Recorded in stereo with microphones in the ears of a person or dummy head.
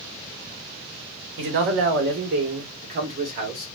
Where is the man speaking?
60° right (ahead or behind), 1.3 m; by 3.7 s 35° right (ahead or behind), 1.8 m.